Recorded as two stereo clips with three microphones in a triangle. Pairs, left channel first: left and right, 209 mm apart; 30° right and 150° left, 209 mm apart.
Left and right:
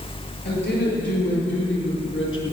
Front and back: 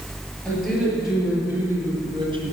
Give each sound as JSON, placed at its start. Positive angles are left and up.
{"t": 0.5, "sound": "a woman speaking", "azimuth_deg": 55, "distance_m": 5.5}